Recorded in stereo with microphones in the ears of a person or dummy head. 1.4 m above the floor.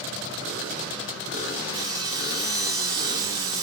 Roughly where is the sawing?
Right.